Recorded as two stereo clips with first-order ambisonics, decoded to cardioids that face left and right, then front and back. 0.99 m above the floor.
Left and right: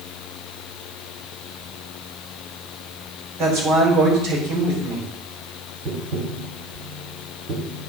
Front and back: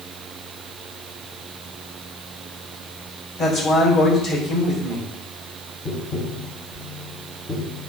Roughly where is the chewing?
No chewing in this recording.